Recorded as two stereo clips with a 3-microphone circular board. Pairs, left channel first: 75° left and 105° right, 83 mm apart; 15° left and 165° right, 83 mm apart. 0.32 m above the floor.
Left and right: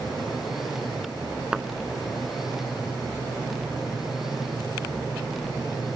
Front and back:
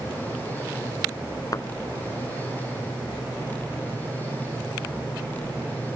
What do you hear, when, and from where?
1.5 s a thud: 25° right